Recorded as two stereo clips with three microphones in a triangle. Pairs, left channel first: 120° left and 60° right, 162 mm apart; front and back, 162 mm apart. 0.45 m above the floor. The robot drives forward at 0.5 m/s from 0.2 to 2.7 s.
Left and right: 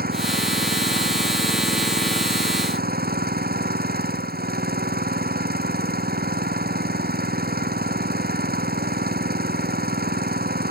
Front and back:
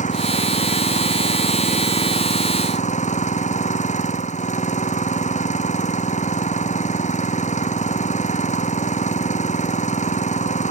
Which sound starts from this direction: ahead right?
An engine running, at 0.0 s.